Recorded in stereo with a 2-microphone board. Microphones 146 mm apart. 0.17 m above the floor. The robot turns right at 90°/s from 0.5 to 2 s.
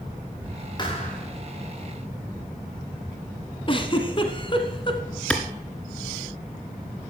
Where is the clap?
10° left (ahead or behind), 1.7 m.